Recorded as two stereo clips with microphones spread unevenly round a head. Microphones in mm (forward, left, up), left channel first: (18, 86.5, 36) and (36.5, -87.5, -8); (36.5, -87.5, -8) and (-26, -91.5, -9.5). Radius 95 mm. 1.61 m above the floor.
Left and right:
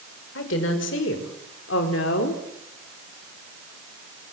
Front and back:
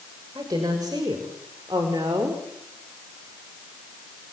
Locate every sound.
0.3 s a woman speaking: 125° left, 5.5 m